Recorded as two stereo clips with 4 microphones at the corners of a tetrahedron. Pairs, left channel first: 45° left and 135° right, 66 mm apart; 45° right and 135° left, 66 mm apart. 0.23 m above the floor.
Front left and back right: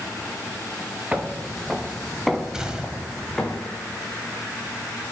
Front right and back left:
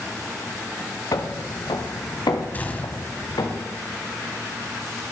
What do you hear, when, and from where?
1.1 s footsteps: 60° right, 2 m; by 3.5 s 35° right, 3 m
2.5 s a gunshot: 65° right, 1.7 m